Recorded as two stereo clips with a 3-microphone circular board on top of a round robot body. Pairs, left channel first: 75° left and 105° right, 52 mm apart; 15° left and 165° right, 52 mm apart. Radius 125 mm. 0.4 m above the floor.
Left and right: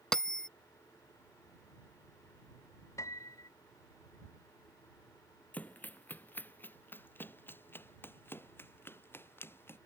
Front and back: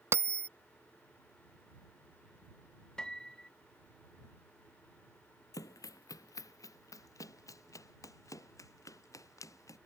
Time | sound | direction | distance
0.1 | a bell | 155° left | ?
3.0 | a piano | 90° left | ?
5.5 | running footsteps | 10° left | ?